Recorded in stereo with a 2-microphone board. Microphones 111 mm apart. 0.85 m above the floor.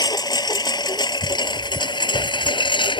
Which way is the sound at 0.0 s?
40° left (ahead or behind).